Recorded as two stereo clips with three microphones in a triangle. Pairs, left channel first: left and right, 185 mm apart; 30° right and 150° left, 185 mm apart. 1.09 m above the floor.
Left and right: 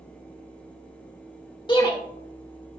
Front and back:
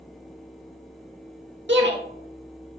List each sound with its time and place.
1.7 s a shout: 155° left, 1.4 m